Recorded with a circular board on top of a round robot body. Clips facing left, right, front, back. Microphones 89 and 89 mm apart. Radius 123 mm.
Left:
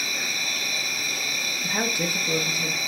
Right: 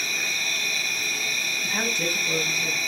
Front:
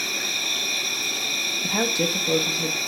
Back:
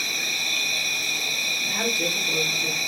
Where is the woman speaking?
10° left, 0.7 m.